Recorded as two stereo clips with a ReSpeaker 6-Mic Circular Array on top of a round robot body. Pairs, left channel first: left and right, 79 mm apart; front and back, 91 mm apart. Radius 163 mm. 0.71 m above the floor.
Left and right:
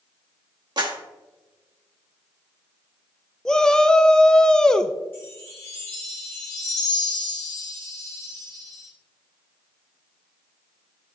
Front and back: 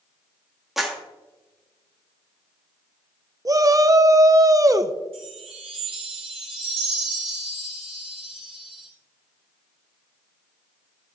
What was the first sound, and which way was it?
A clap, 95° right.